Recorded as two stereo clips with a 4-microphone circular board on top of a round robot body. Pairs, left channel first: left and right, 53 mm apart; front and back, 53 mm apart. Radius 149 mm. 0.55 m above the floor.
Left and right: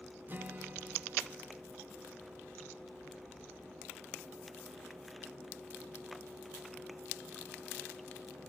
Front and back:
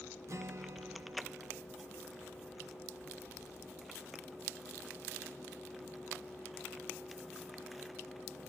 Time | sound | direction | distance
0.3 | a guitar | 145° right | 0.6 m